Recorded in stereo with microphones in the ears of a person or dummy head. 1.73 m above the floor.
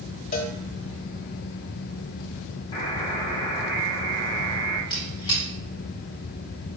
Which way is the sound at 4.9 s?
25° left (ahead or behind).